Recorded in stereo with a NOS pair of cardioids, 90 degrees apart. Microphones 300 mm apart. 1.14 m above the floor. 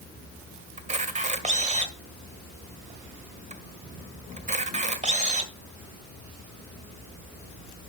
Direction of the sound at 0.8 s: 25° right.